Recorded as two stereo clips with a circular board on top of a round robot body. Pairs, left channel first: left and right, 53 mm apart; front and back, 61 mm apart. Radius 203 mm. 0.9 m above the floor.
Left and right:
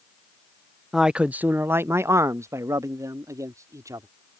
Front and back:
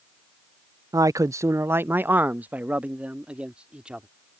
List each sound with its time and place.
0.9 s a man speaking: 175° right; by 4.1 s 105° right